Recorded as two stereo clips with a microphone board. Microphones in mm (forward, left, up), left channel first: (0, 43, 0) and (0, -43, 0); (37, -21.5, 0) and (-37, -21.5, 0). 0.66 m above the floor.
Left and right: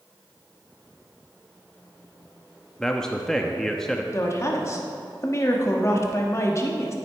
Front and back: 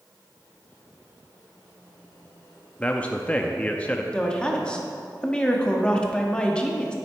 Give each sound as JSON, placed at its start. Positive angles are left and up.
{"t": 2.8, "sound": "a man speaking", "azimuth_deg": 20, "distance_m": 0.6}
{"t": 4.1, "sound": "a woman speaking", "azimuth_deg": 70, "distance_m": 1.3}